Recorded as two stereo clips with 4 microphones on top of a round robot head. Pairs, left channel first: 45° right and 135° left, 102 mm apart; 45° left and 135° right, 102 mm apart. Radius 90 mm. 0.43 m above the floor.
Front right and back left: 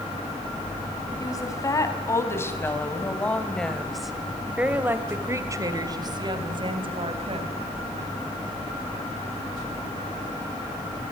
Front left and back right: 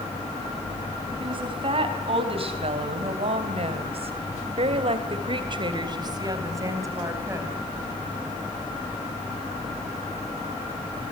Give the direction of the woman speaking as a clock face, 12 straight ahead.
3 o'clock.